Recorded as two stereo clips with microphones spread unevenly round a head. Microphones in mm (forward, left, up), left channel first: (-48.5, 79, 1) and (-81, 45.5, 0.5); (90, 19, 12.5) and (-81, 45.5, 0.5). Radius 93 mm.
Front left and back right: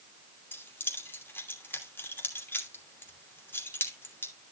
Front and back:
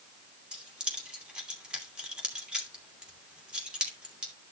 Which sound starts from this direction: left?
Keys jangling, at 0.5 s.